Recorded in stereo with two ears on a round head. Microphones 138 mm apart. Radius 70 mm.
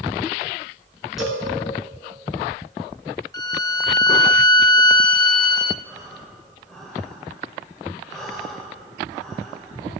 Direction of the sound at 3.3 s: 25° left (ahead or behind).